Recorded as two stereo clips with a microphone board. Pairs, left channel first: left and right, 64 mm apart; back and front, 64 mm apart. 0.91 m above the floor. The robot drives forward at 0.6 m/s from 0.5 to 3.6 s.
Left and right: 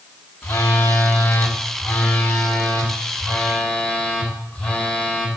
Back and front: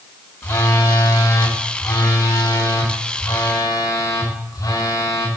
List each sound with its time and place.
0.4 s a phone buzzing: 145° left, 1.4 m; by 5.3 s 165° left, 3 m